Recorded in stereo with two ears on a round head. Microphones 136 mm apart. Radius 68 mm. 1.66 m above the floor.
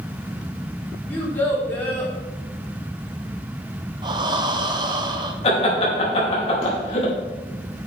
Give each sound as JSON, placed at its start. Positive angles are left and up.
{"t": 1.1, "sound": "a child speaking", "side_deg": 15, "distance_m": 3.0}
{"t": 4.0, "sound": "breathing", "side_deg": -30, "distance_m": 0.8}
{"t": 5.4, "sound": "laughter", "side_deg": 40, "distance_m": 3.0}